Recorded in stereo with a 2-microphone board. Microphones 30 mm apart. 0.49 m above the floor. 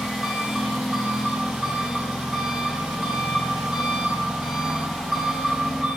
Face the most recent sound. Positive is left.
turn(degrees=-10)  # may be behind; listen again after turning